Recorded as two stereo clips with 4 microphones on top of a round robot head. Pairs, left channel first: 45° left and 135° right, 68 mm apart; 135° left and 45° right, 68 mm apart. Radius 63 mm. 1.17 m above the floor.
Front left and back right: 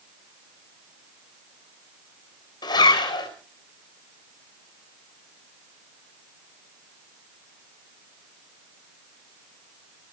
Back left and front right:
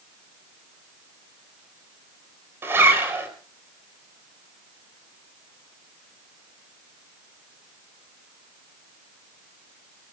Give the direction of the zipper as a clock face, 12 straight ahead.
11 o'clock.